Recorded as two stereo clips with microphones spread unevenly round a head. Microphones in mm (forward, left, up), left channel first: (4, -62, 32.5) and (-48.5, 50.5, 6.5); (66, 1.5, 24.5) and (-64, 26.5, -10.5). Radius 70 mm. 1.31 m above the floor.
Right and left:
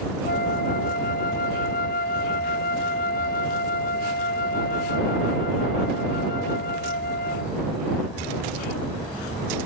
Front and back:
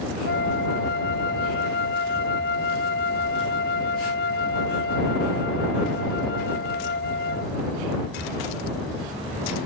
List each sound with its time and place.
0.2 s a flute: 35° right